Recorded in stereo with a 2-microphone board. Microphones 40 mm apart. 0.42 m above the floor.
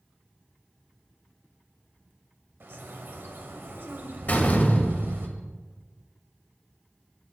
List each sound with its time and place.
2.6 s a bird: 65° right (ahead or behind), 1.0 m
4.3 s a door slam: 50° left (ahead or behind), 1.5 m